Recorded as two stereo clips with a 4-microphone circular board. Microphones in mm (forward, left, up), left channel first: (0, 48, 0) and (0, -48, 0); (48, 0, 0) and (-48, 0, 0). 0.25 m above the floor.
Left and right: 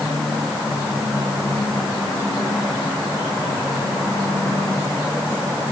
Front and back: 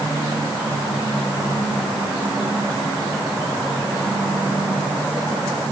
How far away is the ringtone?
No ringtone in this recording.